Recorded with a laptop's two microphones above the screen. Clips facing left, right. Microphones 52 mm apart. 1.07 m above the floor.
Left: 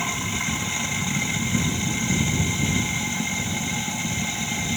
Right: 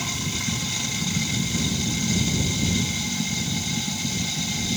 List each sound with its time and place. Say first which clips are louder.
0.0 s running water: left 3 dB; 25° left (ahead or behind)